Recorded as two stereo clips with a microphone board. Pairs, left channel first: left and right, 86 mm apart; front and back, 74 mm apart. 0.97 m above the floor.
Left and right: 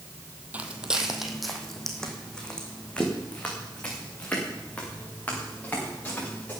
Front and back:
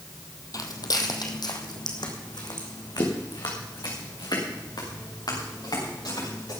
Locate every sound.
0.5 s footsteps: 20° right, 1.7 m; by 6.5 s 20° left, 8 m